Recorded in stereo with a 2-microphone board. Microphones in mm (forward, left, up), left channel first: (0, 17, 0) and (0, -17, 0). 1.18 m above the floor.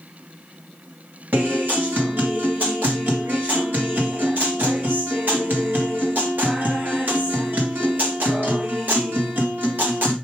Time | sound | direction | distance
1.3 | a guitar | 75° right (ahead or behind) | 2.5 m